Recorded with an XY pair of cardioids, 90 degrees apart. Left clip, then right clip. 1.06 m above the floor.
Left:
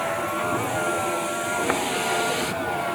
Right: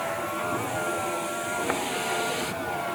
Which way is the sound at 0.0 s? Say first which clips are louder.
Left 4 dB; 35° left.